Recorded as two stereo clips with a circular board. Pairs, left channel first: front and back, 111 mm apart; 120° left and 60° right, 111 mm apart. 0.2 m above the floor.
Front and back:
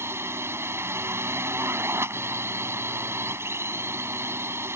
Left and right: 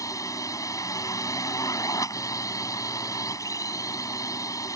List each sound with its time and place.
0.0 s a drone: 135° left